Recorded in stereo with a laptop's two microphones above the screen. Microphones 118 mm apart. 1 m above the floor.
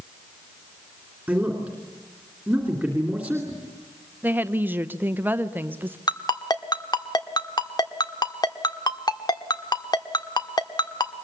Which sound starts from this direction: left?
A ringtone, at 6.1 s.